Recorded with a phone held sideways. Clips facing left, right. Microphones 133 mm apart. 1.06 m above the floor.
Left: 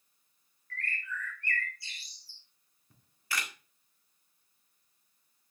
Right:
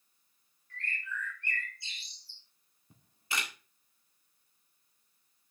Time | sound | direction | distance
0.7 | a bird | 20° right (ahead or behind) | 2.5 m
2.9 | a camera shutter | 20° right (ahead or behind) | 1.9 m